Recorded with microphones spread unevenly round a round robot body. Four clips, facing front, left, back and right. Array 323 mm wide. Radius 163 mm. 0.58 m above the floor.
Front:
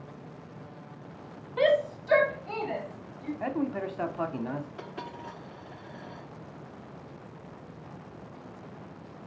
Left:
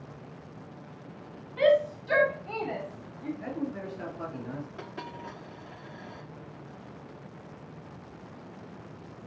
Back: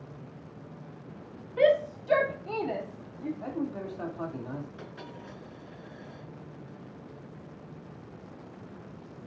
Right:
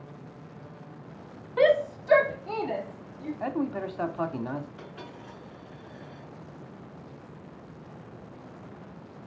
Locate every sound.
1.6 s a shout: 110° right, 1.7 m; by 3.3 s 150° right, 2.5 m
3.4 s a man speaking: 60° right, 1.4 m
4.8 s a dropped coin: 50° left, 6 m